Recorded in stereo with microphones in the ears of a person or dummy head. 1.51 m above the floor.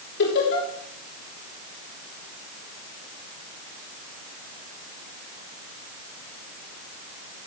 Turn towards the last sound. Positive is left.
turn(degrees=65)  # may be behind; listen again after turning